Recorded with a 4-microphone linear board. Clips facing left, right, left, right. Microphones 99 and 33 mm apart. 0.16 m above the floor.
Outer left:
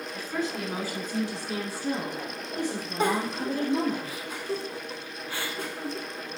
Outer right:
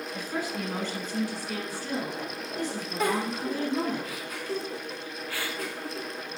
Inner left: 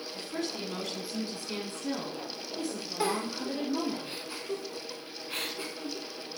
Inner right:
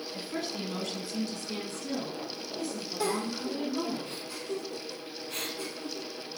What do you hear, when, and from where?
0.1 s a woman speaking: 20° right (ahead or behind), 1.2 m; by 4.0 s 65° left (ahead or behind), 2.5 m
3.0 s a giggle: 30° left (ahead or behind), 0.6 m